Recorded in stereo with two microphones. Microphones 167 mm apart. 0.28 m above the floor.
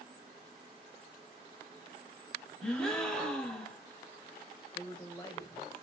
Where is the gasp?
5° left (ahead or behind), 1.1 m.